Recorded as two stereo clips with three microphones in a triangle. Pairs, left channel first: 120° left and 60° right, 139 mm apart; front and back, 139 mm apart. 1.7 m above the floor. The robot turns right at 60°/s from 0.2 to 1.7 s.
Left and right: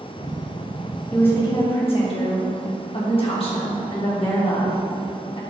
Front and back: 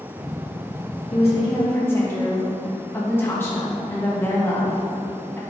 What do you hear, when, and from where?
1.1 s a woman speaking: 40° left, 2 m; by 5.4 s 75° left, 2 m